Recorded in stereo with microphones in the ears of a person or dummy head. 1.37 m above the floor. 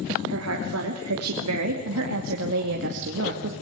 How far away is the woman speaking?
About 3.5 m.